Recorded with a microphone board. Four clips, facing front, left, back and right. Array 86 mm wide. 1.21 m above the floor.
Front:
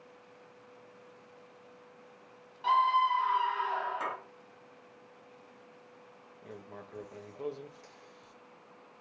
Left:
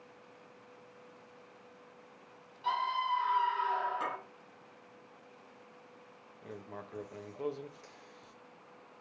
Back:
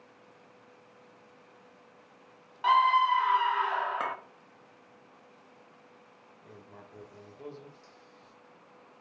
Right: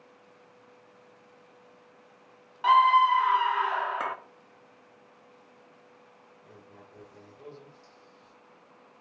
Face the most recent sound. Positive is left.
turn(degrees=65)